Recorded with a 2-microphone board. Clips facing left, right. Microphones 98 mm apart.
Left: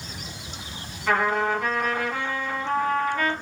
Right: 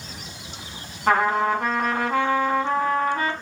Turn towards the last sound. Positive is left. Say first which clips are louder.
# right 3 dB
turn(degrees=-45)  # may be behind; listen again after turning